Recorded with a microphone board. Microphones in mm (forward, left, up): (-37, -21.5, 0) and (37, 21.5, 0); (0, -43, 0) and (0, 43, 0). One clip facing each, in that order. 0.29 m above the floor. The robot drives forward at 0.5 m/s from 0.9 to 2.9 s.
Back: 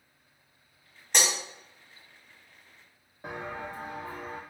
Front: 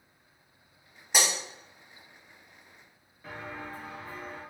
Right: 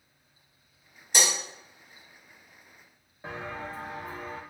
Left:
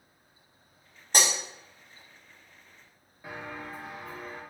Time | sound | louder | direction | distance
1.1 | breaking glass | even, left 1 dB | 110° left | 1.1 m
3.2 | footsteps | back 3 dB, right 3 dB | 155° right | 0.7 m